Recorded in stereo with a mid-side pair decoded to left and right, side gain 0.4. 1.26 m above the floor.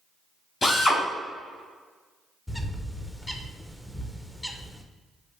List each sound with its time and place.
0.6 s a drill: 45° left, 1.8 m
2.5 s a bird: 10° left, 0.5 m